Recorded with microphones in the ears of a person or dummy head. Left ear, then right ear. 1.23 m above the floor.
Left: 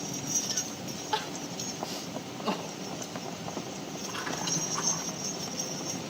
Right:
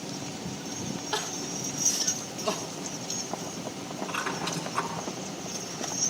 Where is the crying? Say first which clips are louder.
Even; 5° left (ahead or behind), 0.9 m.